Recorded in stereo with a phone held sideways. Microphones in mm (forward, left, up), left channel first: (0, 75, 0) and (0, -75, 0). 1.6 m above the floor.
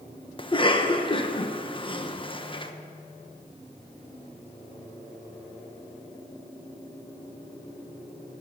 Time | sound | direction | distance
0.4 | a cough | 35° left (ahead or behind) | 1.0 m